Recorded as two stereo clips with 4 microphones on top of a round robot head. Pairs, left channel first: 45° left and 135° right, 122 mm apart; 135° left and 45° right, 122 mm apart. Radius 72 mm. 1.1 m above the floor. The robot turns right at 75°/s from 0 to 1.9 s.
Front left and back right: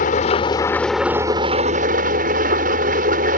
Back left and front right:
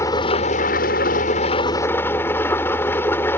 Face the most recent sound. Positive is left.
turn(degrees=-150)